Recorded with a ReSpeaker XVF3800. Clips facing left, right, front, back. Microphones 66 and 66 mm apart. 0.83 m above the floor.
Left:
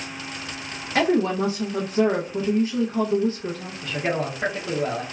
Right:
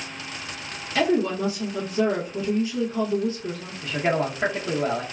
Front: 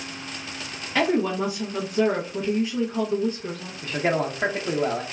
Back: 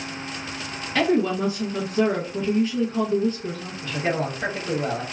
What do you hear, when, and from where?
0.9 s a woman speaking: 75° left, 0.6 m
3.8 s a man speaking: 20° right, 0.6 m